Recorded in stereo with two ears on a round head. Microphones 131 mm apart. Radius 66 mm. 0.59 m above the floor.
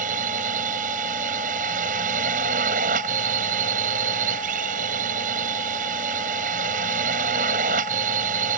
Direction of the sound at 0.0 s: 55° right (ahead or behind).